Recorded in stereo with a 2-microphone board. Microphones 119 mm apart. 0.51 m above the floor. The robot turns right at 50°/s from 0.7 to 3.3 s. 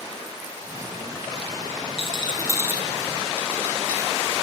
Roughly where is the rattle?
Left.